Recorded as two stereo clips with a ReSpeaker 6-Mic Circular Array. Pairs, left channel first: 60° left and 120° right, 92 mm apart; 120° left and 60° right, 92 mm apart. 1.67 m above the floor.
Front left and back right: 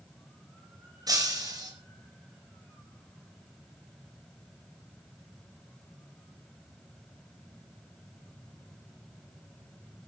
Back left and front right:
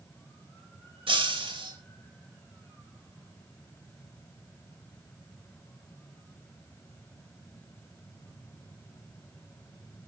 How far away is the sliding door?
I don't hear a sliding door.